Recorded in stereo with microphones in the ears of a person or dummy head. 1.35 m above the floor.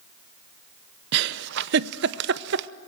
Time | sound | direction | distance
1.1 | a giggle | 65° right (ahead or behind) | 0.7 m